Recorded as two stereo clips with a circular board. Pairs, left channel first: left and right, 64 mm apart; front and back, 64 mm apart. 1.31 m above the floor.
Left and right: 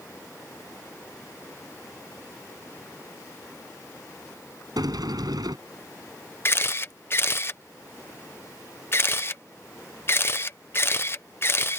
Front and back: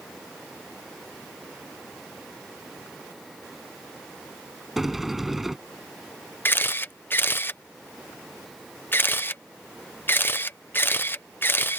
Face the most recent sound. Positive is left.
turn(degrees=50)